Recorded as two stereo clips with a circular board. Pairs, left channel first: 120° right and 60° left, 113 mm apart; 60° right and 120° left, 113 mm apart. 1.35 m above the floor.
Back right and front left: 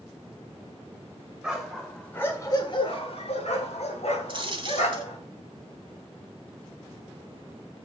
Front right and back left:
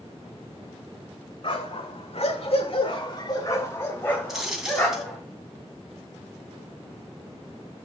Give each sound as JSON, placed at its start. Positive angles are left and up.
{"t": 1.4, "sound": "a dog barking", "azimuth_deg": -25, "distance_m": 2.0}
{"t": 4.3, "sound": "a dropped coin", "azimuth_deg": 35, "distance_m": 1.8}